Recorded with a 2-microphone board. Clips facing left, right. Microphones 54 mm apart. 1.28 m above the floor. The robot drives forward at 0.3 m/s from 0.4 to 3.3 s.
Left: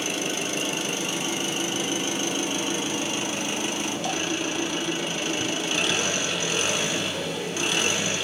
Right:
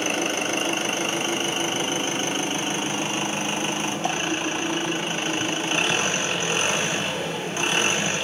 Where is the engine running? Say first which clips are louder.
Right 4 dB; 45° right (ahead or behind), 1.9 m; by 8.2 s 35° right (ahead or behind), 2.5 m.